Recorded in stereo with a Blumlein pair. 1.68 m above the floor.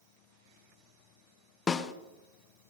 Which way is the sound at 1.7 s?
20° left.